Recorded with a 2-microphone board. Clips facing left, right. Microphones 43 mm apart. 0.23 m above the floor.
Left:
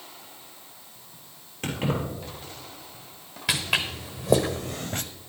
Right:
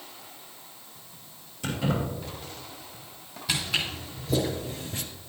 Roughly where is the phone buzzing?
I don't hear a phone buzzing.